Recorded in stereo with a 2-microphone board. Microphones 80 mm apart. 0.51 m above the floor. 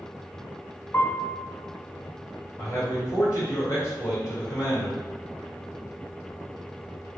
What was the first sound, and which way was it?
A piano, 30° left (ahead or behind).